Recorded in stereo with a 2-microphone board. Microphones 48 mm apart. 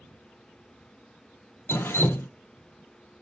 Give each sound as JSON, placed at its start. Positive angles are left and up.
{"t": 1.7, "sound": "dripping", "side_deg": 60, "distance_m": 0.6}